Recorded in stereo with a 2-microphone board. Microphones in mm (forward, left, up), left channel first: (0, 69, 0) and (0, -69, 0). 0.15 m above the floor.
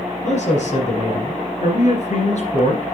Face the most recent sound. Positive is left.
turn(degrees=60)  # may be behind; listen again after turning